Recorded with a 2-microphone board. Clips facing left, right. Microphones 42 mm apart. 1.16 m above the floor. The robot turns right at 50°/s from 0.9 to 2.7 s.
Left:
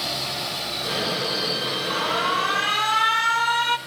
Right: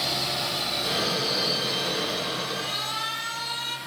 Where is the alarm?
85° left, 1.1 m; by 3.8 s 125° left, 1.1 m.